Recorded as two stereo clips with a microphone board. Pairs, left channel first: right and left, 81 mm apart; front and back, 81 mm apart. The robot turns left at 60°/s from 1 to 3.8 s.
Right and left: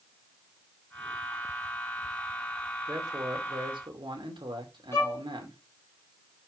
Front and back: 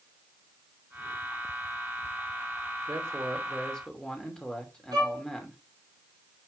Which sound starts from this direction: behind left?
A man speaking, at 2.9 s.